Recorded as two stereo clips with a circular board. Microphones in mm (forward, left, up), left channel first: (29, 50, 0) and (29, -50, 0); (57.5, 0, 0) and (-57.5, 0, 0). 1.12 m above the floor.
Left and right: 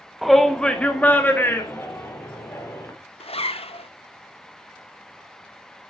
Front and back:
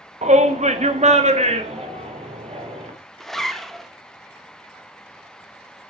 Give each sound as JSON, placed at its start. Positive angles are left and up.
{"t": 0.2, "sound": "a shout", "azimuth_deg": -175, "distance_m": 1.2}
{"t": 3.2, "sound": "a zipper", "azimuth_deg": 85, "distance_m": 0.8}